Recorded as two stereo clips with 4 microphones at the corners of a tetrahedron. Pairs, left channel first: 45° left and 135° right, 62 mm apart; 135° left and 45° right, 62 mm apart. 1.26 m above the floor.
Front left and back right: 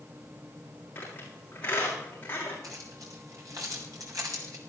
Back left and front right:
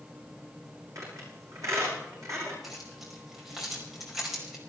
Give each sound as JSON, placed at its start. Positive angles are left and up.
{"t": 0.9, "sound": "a squeak", "azimuth_deg": -10, "distance_m": 7.5}
{"t": 2.6, "sound": "keys jangling", "azimuth_deg": -130, "distance_m": 4.5}